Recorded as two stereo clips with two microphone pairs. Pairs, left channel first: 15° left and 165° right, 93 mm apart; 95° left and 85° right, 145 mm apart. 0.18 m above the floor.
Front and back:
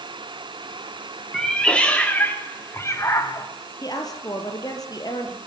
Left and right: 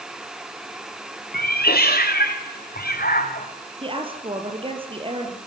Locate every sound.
1.3 s a cat meowing: 100° left, 3 m; by 3.5 s 75° left, 3 m
3.8 s a woman speaking: 35° right, 4 m